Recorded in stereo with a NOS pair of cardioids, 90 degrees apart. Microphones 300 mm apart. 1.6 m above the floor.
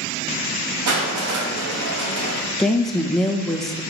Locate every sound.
0.9 s crushing: 65° right, 3 m
2.6 s a woman speaking: straight ahead, 1.2 m